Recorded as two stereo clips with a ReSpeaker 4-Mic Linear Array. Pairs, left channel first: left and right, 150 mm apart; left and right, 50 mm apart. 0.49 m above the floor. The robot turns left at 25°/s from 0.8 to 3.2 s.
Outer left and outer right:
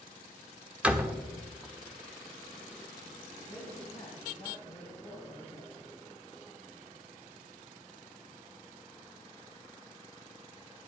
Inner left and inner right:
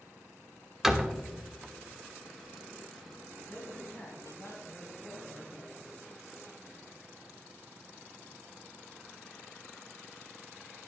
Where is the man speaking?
40° left (ahead or behind), 3 m.